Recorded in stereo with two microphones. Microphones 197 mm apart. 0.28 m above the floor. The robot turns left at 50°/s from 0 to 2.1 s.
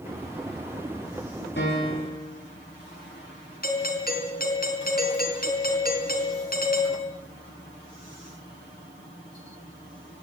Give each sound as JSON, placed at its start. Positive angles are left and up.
{"t": 1.6, "sound": "a piano", "side_deg": 65, "distance_m": 10.0}
{"t": 3.6, "sound": "a doorbell", "side_deg": 45, "distance_m": 3.5}